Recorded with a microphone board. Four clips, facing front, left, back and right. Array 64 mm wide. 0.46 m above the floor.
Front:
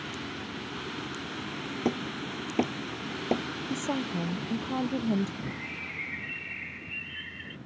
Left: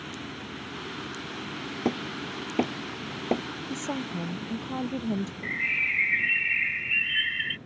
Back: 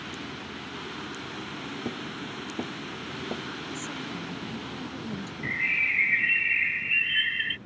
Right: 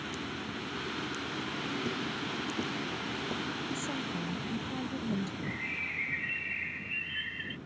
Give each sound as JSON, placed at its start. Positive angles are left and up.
{"t": 1.9, "sound": "hammering", "azimuth_deg": 60}
{"t": 3.7, "sound": "a woman speaking", "azimuth_deg": 35}
{"t": 5.4, "sound": "a bird", "azimuth_deg": 145}